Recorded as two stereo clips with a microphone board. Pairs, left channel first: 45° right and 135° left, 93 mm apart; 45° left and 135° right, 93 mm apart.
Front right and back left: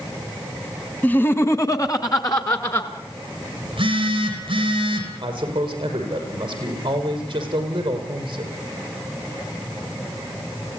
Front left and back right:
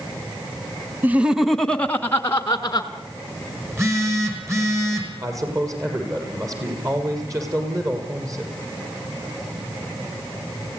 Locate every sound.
1.0 s laughter: 95° right, 1.1 m; by 2.9 s 5° right, 2 m
3.6 s a phone buzzing: 165° left, 5.5 m
5.2 s a man speaking: 170° left, 7 m